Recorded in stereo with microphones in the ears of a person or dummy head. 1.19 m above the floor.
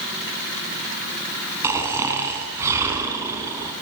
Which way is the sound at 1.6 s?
15° right (ahead or behind).